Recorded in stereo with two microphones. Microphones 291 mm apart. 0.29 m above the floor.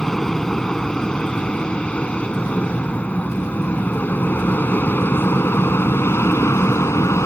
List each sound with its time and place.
0.0 s an aircraft: centre (ahead or behind); by 7.3 s 10° left (ahead or behind)